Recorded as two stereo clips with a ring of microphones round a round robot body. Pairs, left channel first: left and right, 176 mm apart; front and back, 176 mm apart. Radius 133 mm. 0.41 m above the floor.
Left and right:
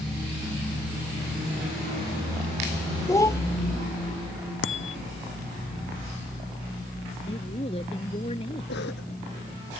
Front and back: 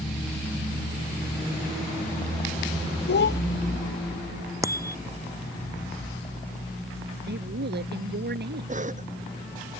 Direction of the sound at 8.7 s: 135° left.